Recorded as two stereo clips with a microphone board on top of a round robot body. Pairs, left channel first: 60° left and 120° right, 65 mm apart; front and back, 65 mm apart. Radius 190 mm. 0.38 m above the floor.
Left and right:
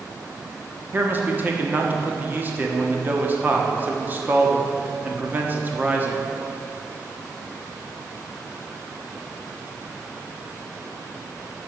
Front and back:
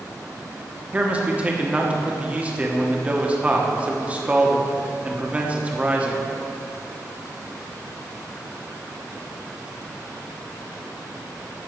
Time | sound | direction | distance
0.9 | a man speaking | 135° right | 1.4 m